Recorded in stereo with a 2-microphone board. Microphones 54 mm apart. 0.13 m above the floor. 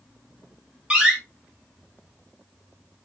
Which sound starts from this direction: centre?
A door slam, at 0.9 s.